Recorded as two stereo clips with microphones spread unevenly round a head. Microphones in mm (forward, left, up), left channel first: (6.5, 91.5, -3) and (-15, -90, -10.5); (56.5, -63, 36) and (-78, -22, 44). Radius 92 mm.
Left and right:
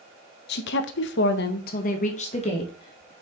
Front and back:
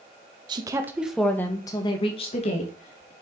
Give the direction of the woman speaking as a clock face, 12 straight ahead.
8 o'clock.